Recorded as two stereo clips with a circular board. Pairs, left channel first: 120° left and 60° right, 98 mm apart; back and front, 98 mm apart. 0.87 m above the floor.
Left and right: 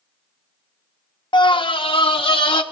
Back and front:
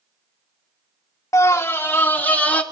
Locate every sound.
1.3 s a scream: 130° left, 0.9 m; by 2.6 s 105° left, 2.5 m